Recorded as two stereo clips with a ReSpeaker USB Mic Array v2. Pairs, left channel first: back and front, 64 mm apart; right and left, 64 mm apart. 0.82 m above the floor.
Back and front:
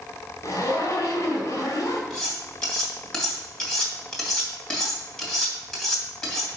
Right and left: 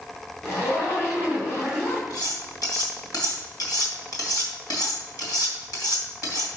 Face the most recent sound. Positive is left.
turn(degrees=-100)